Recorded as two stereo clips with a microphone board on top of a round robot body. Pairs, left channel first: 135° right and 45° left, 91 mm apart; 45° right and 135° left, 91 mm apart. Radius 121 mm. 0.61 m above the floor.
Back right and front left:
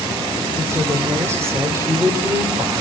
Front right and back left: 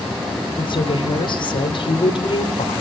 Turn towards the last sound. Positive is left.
turn(degrees=-15)